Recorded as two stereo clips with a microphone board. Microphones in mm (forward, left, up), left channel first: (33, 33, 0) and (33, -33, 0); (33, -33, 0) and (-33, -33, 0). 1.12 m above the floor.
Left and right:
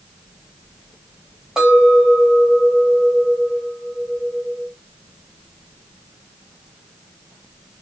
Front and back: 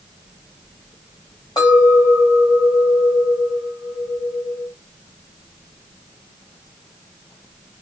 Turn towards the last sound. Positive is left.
turn(degrees=-10)